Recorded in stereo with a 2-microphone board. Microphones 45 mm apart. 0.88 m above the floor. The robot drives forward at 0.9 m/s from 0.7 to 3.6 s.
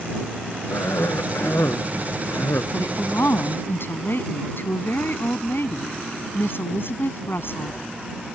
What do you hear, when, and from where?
0.7 s a cough: 70° left (ahead or behind); by 2.6 s 80° left
2.7 s a woman speaking: 65° left (ahead or behind); by 7.8 s 60° left (ahead or behind)